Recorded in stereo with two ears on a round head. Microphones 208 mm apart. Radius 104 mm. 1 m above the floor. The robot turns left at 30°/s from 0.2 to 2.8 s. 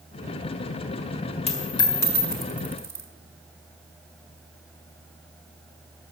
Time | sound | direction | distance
1.5 | a dropped coin | 25° left (ahead or behind) | 1.1 m